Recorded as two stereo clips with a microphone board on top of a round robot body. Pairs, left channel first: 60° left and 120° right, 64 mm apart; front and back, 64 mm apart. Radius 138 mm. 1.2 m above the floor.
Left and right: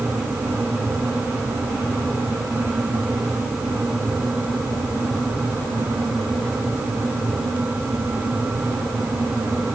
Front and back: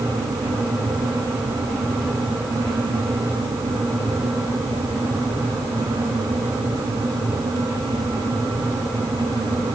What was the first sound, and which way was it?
Only background noise.